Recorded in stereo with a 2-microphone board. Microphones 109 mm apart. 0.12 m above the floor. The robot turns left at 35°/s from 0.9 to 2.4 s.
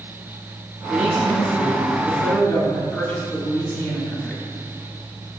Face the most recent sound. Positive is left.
turn(degrees=150)